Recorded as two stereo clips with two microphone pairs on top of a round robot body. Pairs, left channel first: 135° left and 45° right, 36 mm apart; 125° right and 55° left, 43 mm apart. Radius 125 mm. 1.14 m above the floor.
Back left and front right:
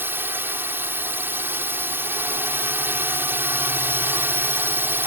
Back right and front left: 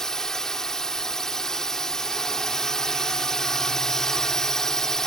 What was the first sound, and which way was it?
A drone, 45° right.